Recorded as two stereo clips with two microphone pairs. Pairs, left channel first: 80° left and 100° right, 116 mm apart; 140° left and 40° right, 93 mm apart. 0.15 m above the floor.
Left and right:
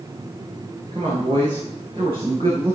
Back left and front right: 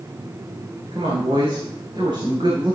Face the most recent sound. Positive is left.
turn(degrees=-65)